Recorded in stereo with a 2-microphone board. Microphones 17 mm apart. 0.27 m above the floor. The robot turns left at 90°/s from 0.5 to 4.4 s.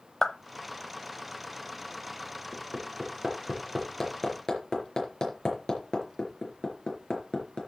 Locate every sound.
0.2 s a clap: 25° left (ahead or behind), 0.7 m
2.5 s hammering: 60° right (ahead or behind), 4 m; by 7.6 s 50° left (ahead or behind), 4 m